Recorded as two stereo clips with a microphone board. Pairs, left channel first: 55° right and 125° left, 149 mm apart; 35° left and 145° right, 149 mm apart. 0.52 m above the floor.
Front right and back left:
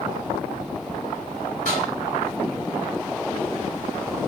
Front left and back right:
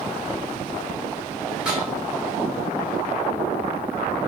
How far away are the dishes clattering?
About 1.8 m.